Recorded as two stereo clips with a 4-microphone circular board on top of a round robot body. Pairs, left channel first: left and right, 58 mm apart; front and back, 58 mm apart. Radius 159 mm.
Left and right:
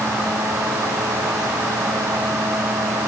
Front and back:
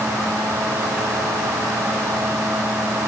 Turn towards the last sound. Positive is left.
No sound to turn to.